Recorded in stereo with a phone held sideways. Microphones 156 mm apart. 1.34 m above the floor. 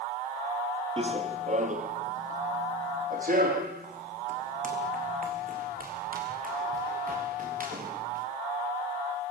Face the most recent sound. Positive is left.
turn(degrees=-60)  # may be behind; listen again after turning